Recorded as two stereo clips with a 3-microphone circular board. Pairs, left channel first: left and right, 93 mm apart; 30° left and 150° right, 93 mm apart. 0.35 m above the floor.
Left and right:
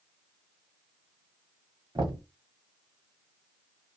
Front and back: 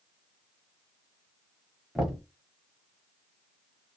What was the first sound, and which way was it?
Knocking, 65° right.